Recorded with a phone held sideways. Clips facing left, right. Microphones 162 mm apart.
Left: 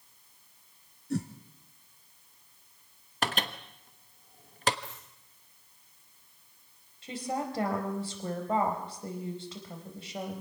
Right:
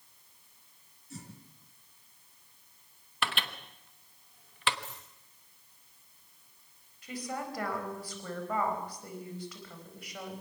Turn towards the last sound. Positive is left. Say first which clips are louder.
# left 4 dB
turn(degrees=30)  # may be behind; listen again after turning